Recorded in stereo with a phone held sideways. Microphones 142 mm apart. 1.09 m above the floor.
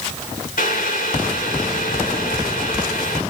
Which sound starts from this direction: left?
Boiling, at 0.6 s.